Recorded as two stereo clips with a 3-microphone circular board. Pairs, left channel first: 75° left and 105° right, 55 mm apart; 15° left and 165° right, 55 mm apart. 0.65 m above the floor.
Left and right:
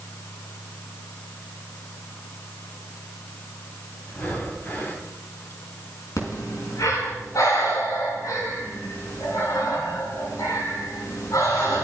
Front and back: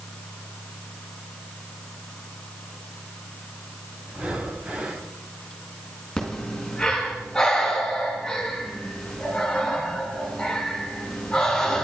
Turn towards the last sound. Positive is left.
turn(degrees=95)